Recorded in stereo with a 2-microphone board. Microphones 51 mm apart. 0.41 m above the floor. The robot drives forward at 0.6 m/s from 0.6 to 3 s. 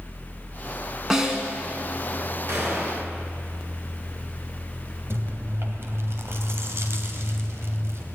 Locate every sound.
1.1 s a snare drum: 10° right (ahead or behind), 3 m
2.5 s a gunshot: 60° right (ahead or behind), 6 m; by 3.0 s 55° right (ahead or behind), 6 m
5.1 s chewing: 60° right (ahead or behind), 2.5 m